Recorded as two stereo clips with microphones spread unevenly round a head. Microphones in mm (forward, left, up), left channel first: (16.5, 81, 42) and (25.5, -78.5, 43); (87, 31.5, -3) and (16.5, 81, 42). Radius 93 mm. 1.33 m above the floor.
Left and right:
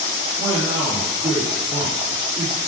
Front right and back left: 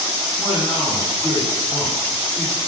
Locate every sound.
0.4 s a man speaking: 155° right, 3.5 m